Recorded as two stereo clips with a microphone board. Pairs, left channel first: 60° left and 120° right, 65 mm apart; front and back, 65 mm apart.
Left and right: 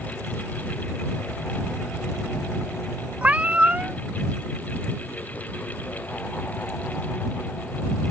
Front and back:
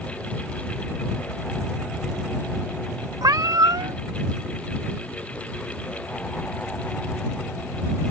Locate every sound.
3.2 s a cat meowing: 175° left